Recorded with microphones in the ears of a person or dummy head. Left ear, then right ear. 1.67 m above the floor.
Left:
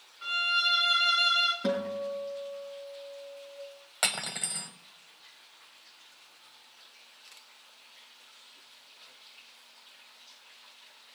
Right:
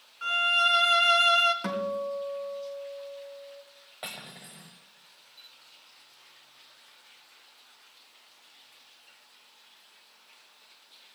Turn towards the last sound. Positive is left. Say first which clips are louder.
# left 10 dB
turn(degrees=50)  # may be behind; listen again after turning